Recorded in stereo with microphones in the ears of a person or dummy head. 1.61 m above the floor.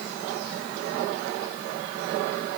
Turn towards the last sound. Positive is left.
No sound to turn to.